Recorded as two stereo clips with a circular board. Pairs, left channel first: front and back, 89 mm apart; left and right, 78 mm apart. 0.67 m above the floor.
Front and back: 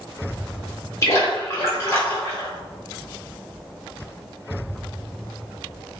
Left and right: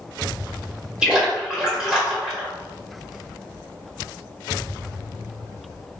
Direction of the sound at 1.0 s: 15° right.